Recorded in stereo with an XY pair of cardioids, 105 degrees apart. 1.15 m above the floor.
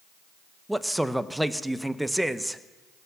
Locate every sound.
0.7 s a man speaking: 5° right, 0.8 m